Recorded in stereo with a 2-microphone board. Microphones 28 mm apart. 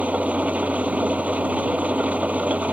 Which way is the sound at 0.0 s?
60° right (ahead or behind).